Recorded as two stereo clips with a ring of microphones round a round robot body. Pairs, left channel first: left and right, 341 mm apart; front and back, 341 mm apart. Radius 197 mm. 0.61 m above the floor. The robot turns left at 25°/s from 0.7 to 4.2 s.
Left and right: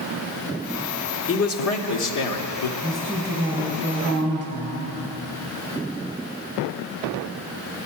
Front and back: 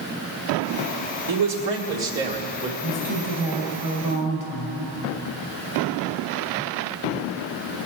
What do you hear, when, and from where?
1.3 s a man speaking: 140° left, 1.5 m; by 2.7 s 105° left, 1.5 m
2.8 s a woman speaking: 5° left, 3 m; by 5.0 s 30° right, 3 m